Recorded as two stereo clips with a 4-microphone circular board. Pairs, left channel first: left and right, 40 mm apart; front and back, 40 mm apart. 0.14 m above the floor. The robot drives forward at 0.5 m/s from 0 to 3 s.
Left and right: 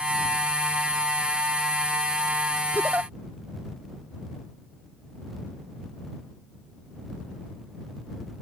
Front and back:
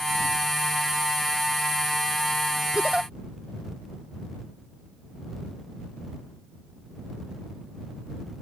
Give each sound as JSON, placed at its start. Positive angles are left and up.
{"t": 2.8, "sound": "a giggle", "azimuth_deg": -110}